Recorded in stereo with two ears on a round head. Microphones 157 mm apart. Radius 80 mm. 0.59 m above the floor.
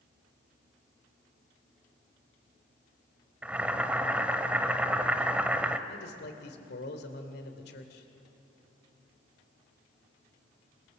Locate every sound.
3.4 s boiling: 10° right (ahead or behind), 1.2 m
5.9 s a man speaking: 65° left (ahead or behind), 2.5 m